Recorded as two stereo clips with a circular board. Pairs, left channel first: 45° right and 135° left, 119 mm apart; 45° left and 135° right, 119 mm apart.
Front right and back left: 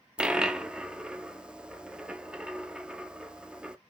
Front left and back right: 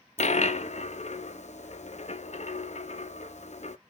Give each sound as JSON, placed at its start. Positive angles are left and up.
{"t": 0.2, "sound": "a dropped coin", "azimuth_deg": 50, "distance_m": 0.5}